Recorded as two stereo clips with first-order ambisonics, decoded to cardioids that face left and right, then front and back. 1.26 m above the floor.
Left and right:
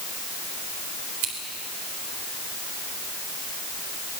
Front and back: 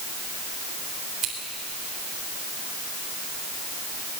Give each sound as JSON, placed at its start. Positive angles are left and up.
{"t": 1.2, "sound": "scissors", "azimuth_deg": -120, "distance_m": 4.0}